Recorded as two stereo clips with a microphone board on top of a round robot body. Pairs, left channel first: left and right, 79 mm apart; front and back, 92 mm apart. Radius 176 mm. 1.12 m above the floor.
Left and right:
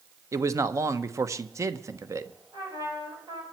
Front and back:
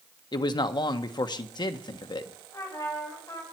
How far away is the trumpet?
About 4 m.